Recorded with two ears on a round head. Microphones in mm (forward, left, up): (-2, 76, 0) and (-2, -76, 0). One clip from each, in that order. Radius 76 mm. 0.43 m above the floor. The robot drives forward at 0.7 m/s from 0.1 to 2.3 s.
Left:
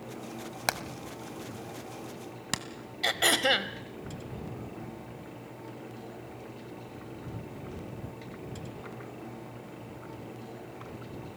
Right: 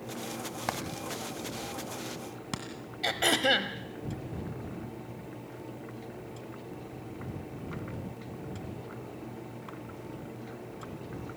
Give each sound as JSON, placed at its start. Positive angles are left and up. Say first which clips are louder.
{"t": 0.7, "sound": "hammering", "louder": "left 3 dB", "side_deg": 75, "distance_m": 1.4}
{"t": 3.0, "sound": "throat clearing", "louder": "left 1 dB", "side_deg": 20, "distance_m": 1.0}